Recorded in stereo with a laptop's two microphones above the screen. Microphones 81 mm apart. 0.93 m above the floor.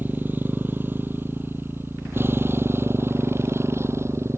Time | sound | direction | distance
0.0 | a motorcycle | 25° right (ahead or behind) | ?